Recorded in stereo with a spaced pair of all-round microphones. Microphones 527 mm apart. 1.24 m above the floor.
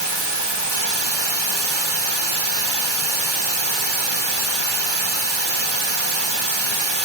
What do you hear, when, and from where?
0.0 s running water: 55° right (ahead or behind), 1.4 m